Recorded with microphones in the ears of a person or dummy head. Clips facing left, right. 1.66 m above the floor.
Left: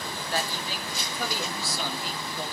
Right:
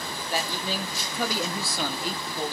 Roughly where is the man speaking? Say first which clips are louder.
Right 2 dB; centre.